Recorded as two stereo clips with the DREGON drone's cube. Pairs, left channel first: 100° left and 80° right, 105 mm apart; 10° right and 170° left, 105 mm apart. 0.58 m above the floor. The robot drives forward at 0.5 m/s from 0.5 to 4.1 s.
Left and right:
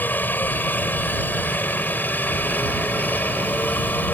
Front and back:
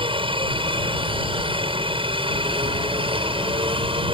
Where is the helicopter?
170° left.